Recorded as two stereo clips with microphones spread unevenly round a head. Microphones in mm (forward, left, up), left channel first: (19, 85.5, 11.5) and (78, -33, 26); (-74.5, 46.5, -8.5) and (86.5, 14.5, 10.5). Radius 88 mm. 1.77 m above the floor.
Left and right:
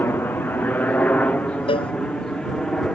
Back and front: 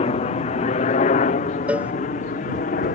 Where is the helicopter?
175° right; by 3.0 s 160° right.